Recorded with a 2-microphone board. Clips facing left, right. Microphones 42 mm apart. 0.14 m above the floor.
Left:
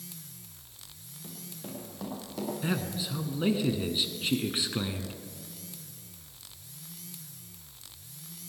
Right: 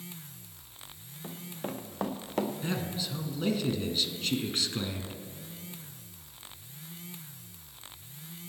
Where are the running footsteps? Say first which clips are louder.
Right 6 dB; 40° right (ahead or behind), 1.8 m; by 2.5 s 55° right (ahead or behind), 2.5 m.